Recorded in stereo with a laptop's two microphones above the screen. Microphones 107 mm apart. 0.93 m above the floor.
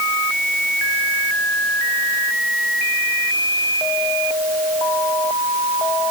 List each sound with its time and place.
Only background noise.